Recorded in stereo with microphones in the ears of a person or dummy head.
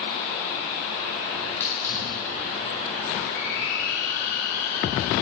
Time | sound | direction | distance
1.4 | a hiss | 10° left (ahead or behind) | 3 m